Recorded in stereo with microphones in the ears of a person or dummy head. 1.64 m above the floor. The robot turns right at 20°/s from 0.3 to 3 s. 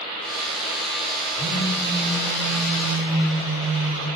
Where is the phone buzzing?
145° left, 2 m; by 4.1 s 175° left, 2 m.